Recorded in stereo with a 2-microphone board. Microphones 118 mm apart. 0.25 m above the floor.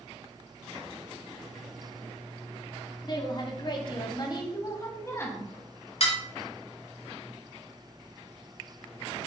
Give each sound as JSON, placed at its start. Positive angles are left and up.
{"t": 3.0, "sound": "a woman speaking", "side_deg": 40, "distance_m": 1.7}
{"t": 6.0, "sound": "dishes clattering", "side_deg": 60, "distance_m": 1.8}